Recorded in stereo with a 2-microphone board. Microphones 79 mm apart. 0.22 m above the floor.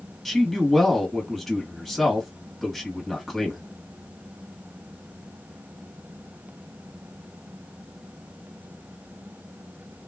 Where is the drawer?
No drawer in this recording.